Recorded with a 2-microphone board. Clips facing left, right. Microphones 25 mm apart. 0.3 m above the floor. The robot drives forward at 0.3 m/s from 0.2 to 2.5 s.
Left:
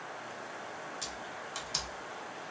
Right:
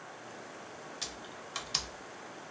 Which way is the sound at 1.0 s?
25° right (ahead or behind).